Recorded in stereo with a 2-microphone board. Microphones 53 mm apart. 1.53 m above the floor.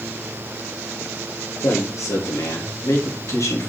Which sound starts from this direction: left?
A man speaking, at 1.6 s.